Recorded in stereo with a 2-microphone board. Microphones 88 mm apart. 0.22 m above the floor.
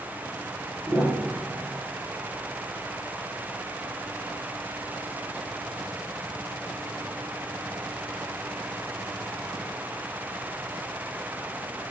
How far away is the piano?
About 8 m.